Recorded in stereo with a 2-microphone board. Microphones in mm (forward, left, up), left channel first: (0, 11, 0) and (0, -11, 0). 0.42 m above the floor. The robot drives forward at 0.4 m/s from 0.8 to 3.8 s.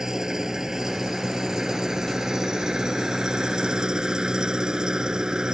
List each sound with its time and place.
0.0 s an engine running: 25° right (ahead or behind); by 5.5 s 35° right (ahead or behind)